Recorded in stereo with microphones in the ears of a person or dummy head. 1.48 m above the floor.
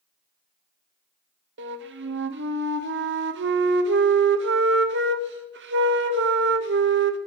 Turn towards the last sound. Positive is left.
turn(degrees=-60)  # may be behind; listen again after turning